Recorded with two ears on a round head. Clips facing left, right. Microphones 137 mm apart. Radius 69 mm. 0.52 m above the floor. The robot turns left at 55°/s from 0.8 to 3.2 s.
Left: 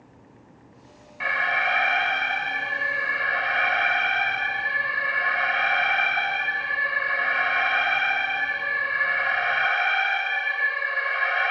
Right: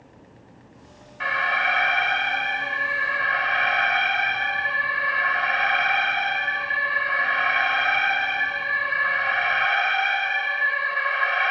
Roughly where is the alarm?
Behind.